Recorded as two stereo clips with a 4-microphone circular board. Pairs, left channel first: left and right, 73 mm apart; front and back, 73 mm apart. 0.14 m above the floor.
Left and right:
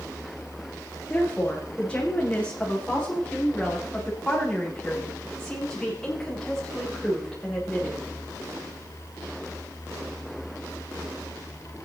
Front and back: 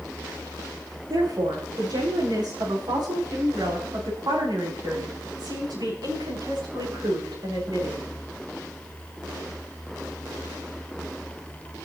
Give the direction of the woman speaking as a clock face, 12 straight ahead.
7 o'clock.